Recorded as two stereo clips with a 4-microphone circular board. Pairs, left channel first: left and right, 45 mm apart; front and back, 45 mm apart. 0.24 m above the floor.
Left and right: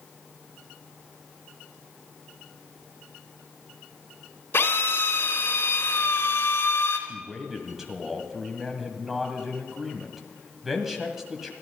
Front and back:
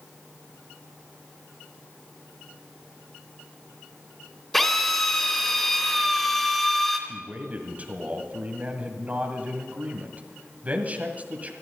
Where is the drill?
85° left, 3 m.